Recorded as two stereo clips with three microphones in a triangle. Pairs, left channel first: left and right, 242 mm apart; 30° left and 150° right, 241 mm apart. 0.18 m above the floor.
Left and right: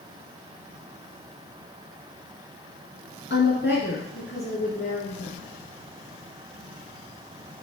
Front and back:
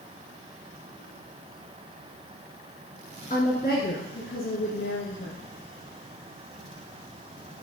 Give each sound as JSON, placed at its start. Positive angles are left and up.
{"t": 3.3, "sound": "a woman speaking", "azimuth_deg": 70, "distance_m": 2.0}